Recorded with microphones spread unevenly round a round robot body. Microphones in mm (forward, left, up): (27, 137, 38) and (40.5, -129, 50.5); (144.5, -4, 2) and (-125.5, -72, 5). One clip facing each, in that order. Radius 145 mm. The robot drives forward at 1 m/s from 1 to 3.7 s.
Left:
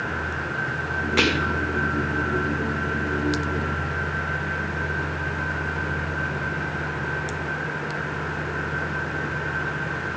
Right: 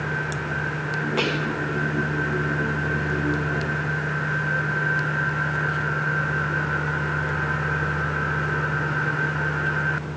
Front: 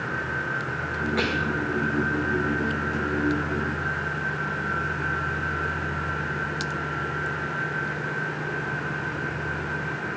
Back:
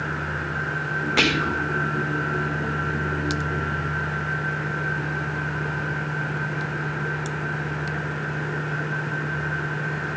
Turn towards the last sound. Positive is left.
turn(degrees=175)